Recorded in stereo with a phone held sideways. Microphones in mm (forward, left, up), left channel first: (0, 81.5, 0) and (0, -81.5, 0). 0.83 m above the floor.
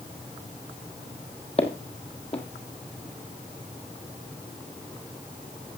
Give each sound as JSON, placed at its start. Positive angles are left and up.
{"t": 1.6, "sound": "footsteps", "side_deg": 40, "distance_m": 1.4}